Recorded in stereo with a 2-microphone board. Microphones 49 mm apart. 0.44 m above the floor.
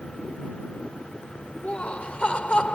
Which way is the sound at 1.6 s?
25° left (ahead or behind).